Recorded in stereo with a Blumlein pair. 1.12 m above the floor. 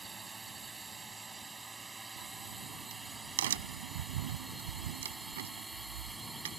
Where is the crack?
55° right.